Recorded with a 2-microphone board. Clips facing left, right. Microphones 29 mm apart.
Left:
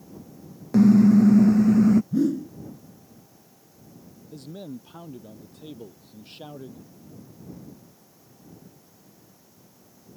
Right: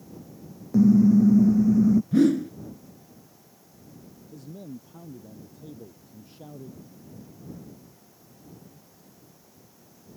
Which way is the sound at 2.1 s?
90° right.